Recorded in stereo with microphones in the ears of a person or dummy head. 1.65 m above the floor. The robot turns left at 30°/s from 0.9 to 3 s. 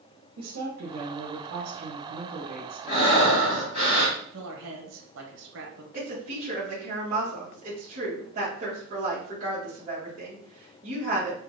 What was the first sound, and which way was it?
A woman speaking, 95° right.